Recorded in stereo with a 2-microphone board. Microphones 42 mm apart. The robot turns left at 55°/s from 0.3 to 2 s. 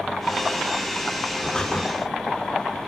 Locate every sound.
1.4 s breathing: 15° left (ahead or behind), 3.5 m; by 1.9 s 35° left (ahead or behind), 3.5 m